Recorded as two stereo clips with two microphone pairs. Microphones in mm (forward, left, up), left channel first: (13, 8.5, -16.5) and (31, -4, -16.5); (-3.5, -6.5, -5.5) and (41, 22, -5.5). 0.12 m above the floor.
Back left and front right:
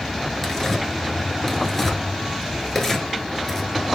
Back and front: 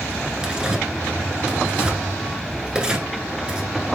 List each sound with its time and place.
0.4 s tearing paper: 85° left, 1.1 m